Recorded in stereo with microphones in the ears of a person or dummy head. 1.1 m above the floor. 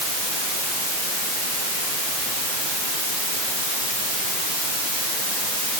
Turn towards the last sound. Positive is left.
No sound to turn to.